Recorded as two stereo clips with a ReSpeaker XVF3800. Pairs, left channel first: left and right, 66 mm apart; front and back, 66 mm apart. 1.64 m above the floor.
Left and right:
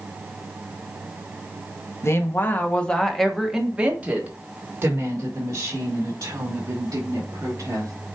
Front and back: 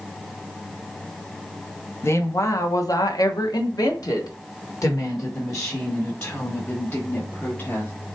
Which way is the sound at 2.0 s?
45° left.